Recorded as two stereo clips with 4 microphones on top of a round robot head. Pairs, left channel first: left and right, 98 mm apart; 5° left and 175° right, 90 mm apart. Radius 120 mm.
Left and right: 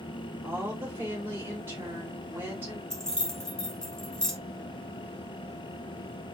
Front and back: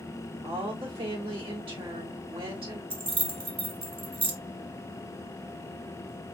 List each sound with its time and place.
0.4 s a woman speaking: 160° right, 3 m
2.9 s keys jangling: 175° left, 1.3 m